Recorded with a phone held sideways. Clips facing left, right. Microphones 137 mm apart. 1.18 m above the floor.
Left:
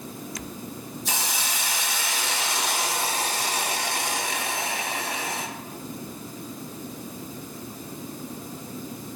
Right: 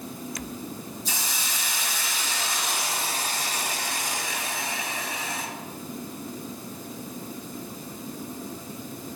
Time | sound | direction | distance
1.1 | a hiss | 65° left (ahead or behind) | 1.3 m